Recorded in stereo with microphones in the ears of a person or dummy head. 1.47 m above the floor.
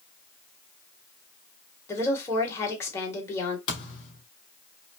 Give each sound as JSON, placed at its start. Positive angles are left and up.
{"t": 1.9, "sound": "a woman speaking", "side_deg": 20, "distance_m": 1.9}
{"t": 3.7, "sound": "a thud", "side_deg": 30, "distance_m": 2.5}